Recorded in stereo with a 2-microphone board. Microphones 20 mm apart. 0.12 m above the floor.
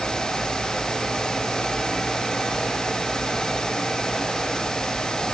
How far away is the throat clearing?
No throat clearing in this recording.